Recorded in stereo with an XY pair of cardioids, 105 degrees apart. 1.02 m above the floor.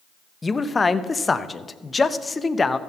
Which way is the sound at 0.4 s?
25° left.